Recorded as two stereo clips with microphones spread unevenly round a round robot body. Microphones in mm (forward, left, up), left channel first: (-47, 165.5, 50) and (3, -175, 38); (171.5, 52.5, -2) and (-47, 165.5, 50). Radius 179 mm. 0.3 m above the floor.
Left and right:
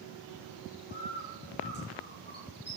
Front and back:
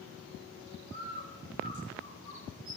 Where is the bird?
160° left, 7.5 m.